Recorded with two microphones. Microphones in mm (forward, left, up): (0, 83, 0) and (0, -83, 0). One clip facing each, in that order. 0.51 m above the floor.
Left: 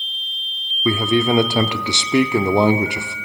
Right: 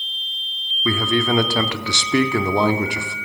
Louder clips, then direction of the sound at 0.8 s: Left 3 dB; 20° left (ahead or behind).